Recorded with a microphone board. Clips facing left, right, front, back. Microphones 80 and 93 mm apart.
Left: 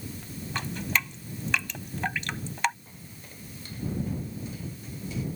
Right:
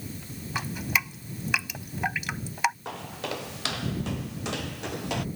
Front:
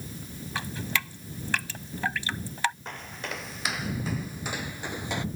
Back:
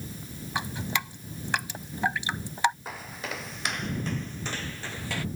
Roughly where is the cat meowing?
No cat meowing in this recording.